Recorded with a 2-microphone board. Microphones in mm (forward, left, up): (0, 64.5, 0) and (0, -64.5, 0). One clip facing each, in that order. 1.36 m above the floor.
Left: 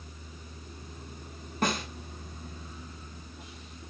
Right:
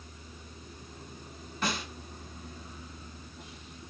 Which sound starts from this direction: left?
A snare drum, at 1.6 s.